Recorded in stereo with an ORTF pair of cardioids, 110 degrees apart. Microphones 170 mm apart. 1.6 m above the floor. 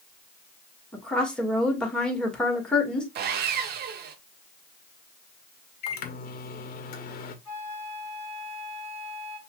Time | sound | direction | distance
0.9 | a woman speaking | 5° left | 1.8 m
3.1 | sawing | 65° right | 0.7 m
5.8 | a microwave | 60° left | 0.8 m
7.5 | a flute | 15° right | 3 m